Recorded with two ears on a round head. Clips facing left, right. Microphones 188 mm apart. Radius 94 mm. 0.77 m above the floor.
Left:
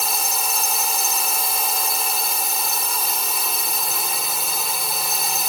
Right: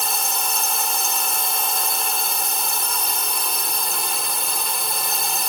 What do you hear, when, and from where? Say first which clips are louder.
0.0 s a drone: even; 5° left (ahead or behind)